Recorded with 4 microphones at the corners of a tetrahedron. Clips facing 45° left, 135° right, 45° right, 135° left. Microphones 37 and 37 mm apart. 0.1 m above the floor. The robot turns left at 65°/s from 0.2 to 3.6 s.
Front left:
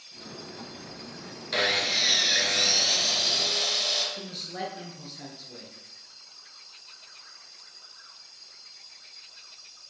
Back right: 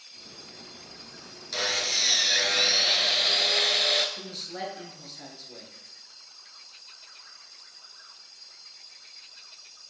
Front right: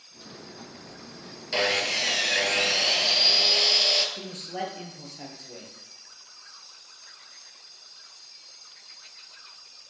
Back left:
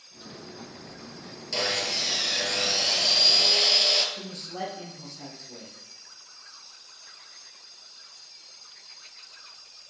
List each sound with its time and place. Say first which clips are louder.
1.5 s sawing: front left 3 dB, front right 4 dB; 5° left, 0.6 m; by 4.1 s 130° right, 0.6 m
4.2 s a man speaking: front left 1 dB, front right 2 dB; 40° right, 1.6 m